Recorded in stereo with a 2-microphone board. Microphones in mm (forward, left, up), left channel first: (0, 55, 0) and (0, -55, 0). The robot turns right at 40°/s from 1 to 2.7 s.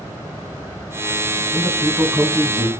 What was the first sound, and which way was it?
A man speaking, 175° right.